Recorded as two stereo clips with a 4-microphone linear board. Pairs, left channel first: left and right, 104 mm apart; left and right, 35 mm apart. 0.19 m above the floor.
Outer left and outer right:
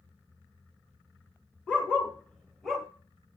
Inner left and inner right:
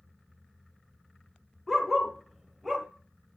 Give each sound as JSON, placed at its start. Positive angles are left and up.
{"t": 1.7, "sound": "a dog barking", "side_deg": 15, "distance_m": 2.0}